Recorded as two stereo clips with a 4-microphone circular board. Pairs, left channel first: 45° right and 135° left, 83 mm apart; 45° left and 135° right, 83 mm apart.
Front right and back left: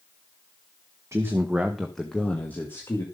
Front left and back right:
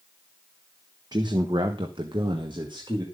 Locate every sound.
1.1 s a man speaking: 170° right, 1.4 m; by 3.0 s 105° right, 2.5 m